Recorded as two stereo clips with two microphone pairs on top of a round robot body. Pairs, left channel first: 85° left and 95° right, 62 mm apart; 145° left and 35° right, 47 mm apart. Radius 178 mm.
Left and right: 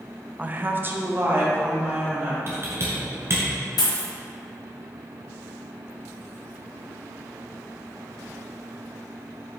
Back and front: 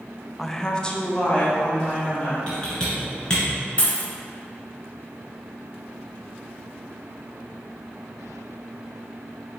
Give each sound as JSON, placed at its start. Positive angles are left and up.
{"t": 0.4, "sound": "a woman speaking", "azimuth_deg": -100, "distance_m": 0.6}
{"t": 2.5, "sound": "typing on a keyboard", "azimuth_deg": -145, "distance_m": 1.8}
{"t": 3.8, "sound": "a dropped coin", "azimuth_deg": 80, "distance_m": 1.4}